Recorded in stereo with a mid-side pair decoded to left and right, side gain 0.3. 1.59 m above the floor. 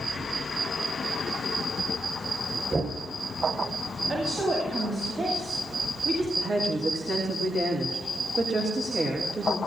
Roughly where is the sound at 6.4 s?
Ahead right.